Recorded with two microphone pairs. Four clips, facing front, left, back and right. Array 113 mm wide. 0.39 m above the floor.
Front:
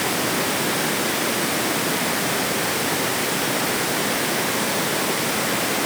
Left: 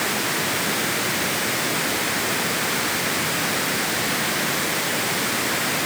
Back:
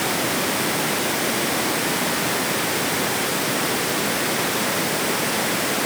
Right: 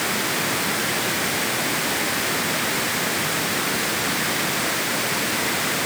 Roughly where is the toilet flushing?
No toilet flushing in this recording.